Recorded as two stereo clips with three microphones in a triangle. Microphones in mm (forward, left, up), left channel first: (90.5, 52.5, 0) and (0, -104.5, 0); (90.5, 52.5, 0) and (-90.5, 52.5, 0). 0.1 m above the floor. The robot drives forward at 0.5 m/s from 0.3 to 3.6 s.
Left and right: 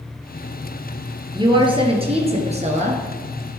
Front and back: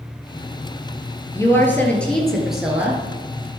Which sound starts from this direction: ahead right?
A woman speaking, at 1.3 s.